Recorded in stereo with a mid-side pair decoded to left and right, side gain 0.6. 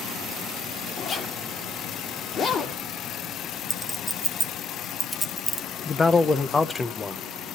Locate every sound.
1.0 s a zipper: 45° left, 1.9 m
3.7 s a clink: straight ahead, 1.4 m
5.8 s a man speaking: 20° left, 0.9 m